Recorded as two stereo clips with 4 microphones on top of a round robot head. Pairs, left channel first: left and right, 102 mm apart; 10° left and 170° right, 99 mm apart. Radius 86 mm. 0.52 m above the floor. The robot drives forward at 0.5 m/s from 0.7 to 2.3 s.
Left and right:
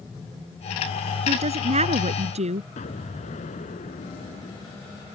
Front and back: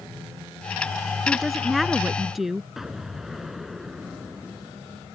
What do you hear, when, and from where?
1.3 s a woman speaking: 80° right; by 2.7 s 85° right
2.8 s an explosion: 100° left